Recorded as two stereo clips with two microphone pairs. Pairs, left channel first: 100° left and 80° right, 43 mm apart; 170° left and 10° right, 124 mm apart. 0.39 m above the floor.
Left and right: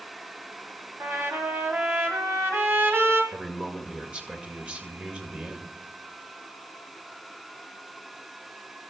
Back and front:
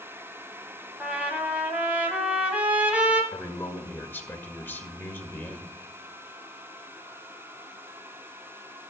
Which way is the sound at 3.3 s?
125° right.